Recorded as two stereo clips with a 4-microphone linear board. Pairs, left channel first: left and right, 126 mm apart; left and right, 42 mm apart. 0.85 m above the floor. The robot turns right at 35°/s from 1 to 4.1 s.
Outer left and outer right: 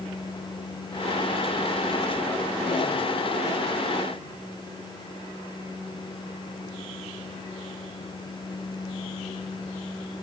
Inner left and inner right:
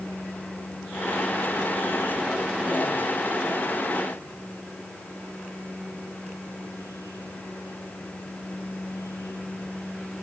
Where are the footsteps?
I don't hear footsteps.